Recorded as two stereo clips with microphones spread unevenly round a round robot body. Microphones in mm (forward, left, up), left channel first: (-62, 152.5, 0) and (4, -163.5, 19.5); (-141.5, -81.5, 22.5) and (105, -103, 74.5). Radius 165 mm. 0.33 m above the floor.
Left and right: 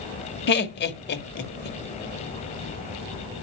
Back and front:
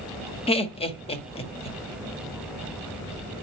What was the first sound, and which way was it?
Laughter, 135° left.